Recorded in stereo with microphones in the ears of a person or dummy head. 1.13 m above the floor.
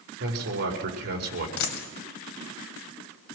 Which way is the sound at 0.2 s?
55° right (ahead or behind).